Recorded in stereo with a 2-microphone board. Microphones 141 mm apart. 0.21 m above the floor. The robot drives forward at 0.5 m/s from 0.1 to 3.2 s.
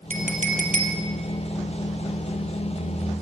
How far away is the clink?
About 3.5 m.